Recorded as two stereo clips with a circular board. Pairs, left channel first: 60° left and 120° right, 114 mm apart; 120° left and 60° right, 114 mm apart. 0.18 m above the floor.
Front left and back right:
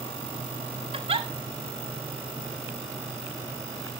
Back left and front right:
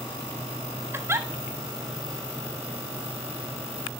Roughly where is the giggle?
Behind right.